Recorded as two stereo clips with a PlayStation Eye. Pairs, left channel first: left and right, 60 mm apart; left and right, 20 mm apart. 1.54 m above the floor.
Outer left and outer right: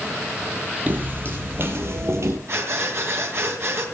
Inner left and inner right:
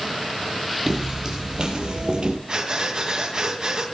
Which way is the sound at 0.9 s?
30° right (ahead or behind).